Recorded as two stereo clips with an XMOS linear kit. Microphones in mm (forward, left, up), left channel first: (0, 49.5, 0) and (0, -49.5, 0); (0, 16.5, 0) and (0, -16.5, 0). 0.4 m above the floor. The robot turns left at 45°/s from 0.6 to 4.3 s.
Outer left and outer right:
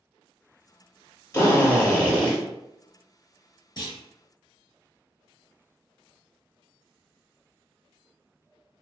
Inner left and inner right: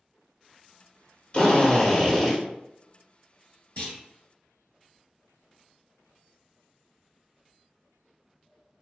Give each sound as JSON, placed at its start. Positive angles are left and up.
{"t": 1.3, "sound": "a drill", "azimuth_deg": 55, "distance_m": 0.8}
{"t": 3.8, "sound": "a clunk", "side_deg": 50, "distance_m": 1.2}